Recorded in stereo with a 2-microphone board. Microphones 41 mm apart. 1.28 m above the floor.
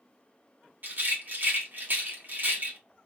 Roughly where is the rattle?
Right.